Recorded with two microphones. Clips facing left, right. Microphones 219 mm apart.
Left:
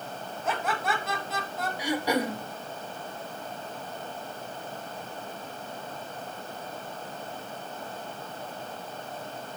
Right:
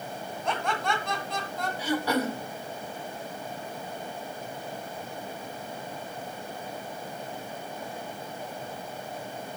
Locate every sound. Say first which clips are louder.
0.5 s laughter: even; 5° left (ahead or behind), 2.0 m
1.8 s throat clearing: even; 15° left (ahead or behind), 0.9 m